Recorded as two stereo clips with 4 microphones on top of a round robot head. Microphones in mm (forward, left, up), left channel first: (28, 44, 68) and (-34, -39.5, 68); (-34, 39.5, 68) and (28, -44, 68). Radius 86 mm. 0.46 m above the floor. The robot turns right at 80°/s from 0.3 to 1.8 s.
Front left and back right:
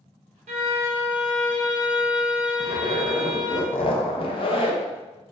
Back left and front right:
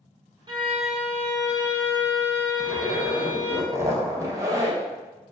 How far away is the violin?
About 0.7 m.